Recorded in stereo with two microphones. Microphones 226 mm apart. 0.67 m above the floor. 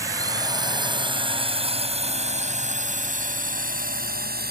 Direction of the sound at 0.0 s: 15° right (ahead or behind).